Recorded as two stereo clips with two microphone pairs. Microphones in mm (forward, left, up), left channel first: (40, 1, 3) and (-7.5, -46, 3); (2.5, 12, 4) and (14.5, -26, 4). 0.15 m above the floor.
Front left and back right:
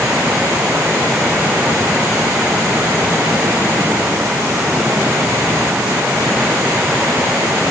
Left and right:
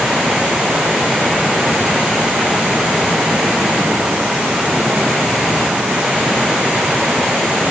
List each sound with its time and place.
Only background noise.